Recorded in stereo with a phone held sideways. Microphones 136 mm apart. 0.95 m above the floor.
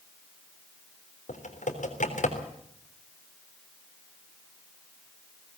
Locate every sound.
1.3 s typing on a keyboard: 75° left (ahead or behind), 3.5 m